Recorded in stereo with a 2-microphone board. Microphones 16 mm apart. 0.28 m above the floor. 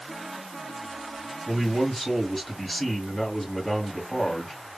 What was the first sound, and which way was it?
A man speaking, 25° left (ahead or behind).